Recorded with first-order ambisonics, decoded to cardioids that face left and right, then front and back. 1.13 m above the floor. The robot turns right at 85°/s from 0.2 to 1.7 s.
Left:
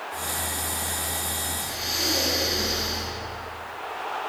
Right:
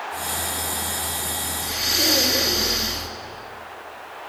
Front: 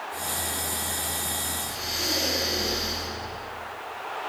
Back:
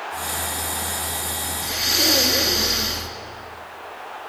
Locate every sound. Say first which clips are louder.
1.6 s breathing: right 8 dB, back 9 dB; 155° right, 1.3 m; by 3.1 s 145° right, 1.3 m